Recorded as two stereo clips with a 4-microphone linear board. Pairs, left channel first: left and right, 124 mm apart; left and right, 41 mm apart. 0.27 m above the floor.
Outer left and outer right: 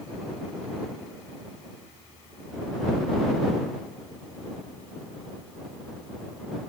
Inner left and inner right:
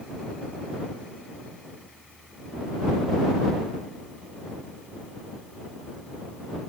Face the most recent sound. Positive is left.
No sound to turn to.